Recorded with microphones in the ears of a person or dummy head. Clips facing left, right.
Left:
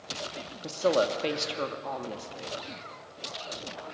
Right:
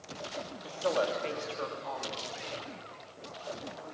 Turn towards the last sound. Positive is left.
turn(degrees=60)  # may be behind; listen again after turning